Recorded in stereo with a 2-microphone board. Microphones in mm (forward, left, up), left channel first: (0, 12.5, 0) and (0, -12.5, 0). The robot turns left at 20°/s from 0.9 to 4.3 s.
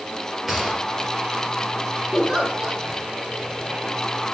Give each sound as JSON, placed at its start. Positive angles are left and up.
{"t": 0.5, "sound": "a gunshot", "side_deg": -5, "distance_m": 2.5}
{"t": 2.1, "sound": "a giggle", "side_deg": -25, "distance_m": 6.0}